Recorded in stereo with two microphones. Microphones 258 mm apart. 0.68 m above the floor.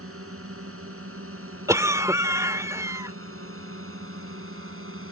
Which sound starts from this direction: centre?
A cough, at 1.7 s.